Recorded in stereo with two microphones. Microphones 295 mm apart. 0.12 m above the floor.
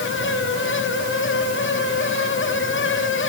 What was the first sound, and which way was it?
Only background noise.